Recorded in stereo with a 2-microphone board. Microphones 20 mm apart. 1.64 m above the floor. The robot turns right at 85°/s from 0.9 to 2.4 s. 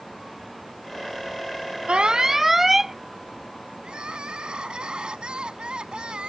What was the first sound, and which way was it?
An alarm, 60° right.